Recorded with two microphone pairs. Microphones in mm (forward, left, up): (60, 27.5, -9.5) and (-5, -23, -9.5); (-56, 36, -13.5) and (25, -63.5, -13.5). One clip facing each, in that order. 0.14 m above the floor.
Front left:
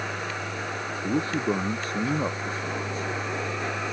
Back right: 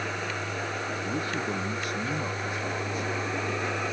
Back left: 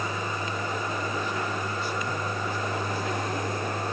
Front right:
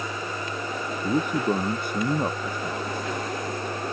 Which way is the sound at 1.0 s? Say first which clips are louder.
Front left 8 dB, front right 6 dB; 15° right.